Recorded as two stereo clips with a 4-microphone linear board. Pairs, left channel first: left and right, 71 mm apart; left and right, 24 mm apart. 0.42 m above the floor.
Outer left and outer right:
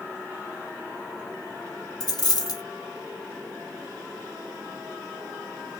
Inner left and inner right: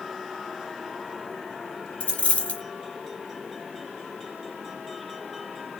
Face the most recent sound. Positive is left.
turn(degrees=75)  # may be behind; listen again after turning